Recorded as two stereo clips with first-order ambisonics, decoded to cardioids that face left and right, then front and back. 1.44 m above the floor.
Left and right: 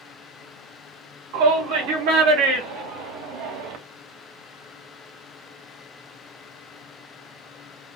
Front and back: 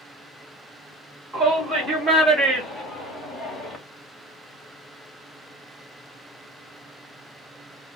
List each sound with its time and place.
1.3 s a shout: 105° right, 3.5 m; by 3.8 s 90° right, 1.9 m